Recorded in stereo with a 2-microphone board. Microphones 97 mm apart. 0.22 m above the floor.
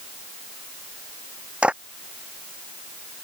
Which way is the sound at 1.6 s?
10° right (ahead or behind).